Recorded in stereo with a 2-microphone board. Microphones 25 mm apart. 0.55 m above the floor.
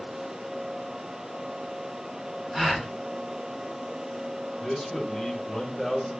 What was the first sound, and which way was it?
A gasp, 20° right (ahead or behind).